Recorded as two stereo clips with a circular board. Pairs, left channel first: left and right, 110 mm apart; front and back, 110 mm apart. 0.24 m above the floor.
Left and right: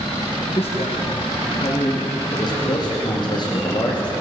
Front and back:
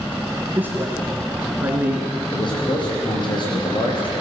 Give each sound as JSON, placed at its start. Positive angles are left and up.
{"t": 0.6, "sound": "a man speaking", "azimuth_deg": 105, "distance_m": 3.5}
{"t": 2.3, "sound": "a man speaking", "azimuth_deg": 45, "distance_m": 8.5}